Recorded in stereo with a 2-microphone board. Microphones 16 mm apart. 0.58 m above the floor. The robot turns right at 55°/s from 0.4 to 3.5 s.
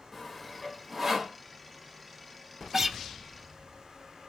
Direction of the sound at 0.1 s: 5° left (ahead or behind).